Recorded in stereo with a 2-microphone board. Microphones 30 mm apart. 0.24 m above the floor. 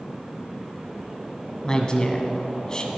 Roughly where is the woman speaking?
Left.